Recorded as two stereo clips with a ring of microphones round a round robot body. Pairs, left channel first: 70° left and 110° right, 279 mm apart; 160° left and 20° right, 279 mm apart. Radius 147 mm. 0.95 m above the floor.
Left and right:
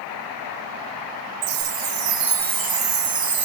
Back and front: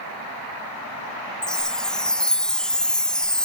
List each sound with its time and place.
1.4 s a chime: 115° right